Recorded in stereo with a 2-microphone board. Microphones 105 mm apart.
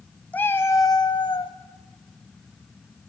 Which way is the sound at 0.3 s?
15° left (ahead or behind).